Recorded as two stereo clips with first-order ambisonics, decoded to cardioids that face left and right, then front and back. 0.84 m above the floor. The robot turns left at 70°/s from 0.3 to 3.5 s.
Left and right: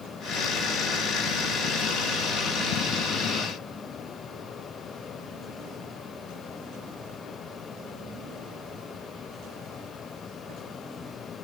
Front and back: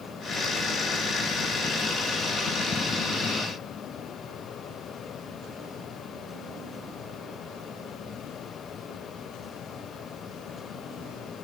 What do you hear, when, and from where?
Only background noise.